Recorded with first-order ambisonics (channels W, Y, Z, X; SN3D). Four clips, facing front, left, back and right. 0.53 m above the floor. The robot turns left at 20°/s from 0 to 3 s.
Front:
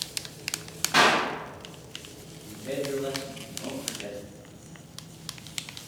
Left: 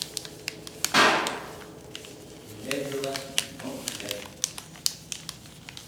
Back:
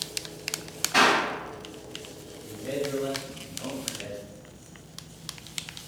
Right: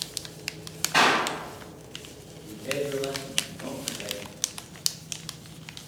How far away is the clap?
About 1.6 m.